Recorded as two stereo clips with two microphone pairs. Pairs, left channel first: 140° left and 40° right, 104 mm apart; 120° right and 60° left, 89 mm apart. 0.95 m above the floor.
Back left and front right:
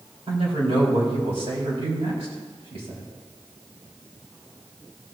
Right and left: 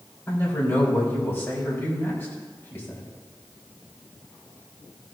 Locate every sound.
0.3 s a man speaking: 60° right, 3.5 m